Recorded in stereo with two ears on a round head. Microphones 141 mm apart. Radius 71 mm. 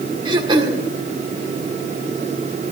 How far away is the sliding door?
No sliding door in this recording.